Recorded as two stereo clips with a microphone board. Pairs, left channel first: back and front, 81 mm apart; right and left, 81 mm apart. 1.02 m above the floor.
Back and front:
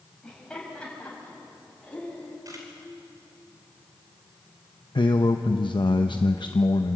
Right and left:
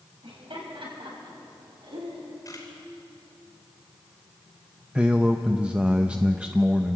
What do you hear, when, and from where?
0.2 s laughter: 100° left, 6 m; by 2.4 s 110° left, 7.5 m
2.5 s a camera shutter: 40° right, 5 m
5.0 s a man speaking: 165° left, 0.7 m